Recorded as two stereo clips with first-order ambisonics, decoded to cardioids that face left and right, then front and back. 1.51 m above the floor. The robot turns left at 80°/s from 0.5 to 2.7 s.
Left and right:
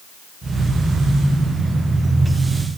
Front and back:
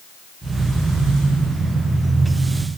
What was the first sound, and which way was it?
Only background noise.